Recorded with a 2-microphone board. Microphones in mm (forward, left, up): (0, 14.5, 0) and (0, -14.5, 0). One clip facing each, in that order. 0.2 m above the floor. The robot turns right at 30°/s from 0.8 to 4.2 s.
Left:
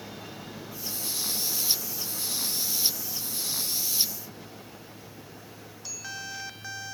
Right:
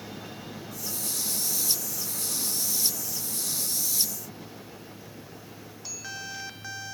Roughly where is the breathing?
No breathing in this recording.